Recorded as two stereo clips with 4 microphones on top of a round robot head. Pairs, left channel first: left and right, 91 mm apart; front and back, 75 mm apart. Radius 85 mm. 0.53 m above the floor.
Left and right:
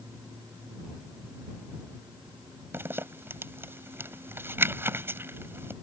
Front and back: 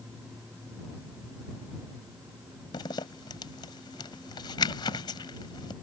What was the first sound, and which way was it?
A zipper, 30° right.